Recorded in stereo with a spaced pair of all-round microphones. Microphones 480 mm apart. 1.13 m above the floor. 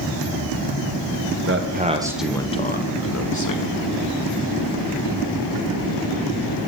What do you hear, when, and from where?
1.5 s a man speaking: 25° right (ahead or behind), 1.0 m; by 3.8 s 45° left (ahead or behind), 1.4 m